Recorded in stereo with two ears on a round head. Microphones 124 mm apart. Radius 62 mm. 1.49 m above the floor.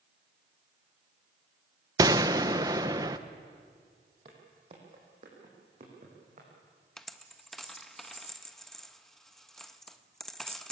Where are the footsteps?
40° right (ahead or behind), 4.5 m; by 6.5 s 50° right (ahead or behind), 6.5 m.